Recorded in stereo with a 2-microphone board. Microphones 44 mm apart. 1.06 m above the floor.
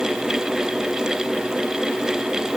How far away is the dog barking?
I don't hear a dog barking.